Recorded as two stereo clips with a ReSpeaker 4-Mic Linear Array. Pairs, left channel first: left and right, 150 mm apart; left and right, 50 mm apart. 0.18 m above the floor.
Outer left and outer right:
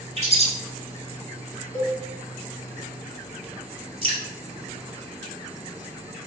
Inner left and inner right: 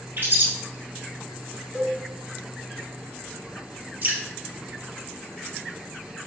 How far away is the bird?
About 0.7 m.